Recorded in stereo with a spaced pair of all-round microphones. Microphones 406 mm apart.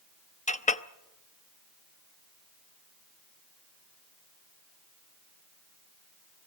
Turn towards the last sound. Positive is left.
turn(degrees=20)  # may be behind; listen again after turning